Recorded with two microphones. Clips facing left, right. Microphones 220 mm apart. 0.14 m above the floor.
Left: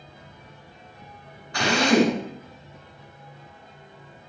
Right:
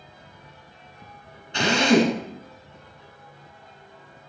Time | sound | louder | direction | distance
1.5 | a drill | right 1 dB | 25° right (ahead or behind) | 1.8 m